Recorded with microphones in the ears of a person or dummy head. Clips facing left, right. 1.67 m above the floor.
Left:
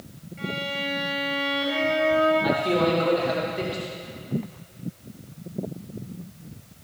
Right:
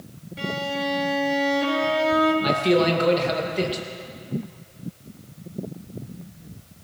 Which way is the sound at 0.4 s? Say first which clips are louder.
Right 4 dB; 85° right.